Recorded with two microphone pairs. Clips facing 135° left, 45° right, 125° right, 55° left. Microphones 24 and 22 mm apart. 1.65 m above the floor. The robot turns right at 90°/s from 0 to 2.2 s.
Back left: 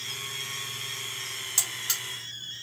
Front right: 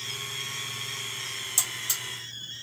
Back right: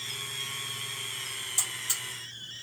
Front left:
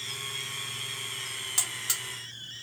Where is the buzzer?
60° left, 2 m; by 2.0 s 105° left, 2 m.